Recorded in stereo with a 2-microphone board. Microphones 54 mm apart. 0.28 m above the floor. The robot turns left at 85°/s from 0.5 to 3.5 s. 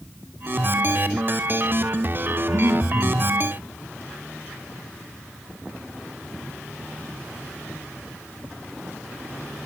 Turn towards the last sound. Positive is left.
turn(degrees=-150)